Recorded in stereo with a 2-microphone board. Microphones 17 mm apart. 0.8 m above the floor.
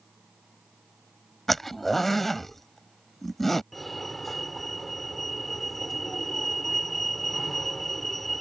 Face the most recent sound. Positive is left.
turn(degrees=15)  # may be behind; listen again after turning